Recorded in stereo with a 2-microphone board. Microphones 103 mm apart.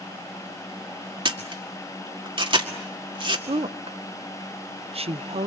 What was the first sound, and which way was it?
A camera shutter, 50° right (ahead or behind).